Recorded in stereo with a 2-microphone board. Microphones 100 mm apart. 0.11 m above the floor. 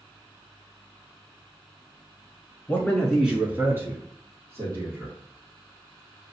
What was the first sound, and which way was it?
A man speaking, 15° left (ahead or behind).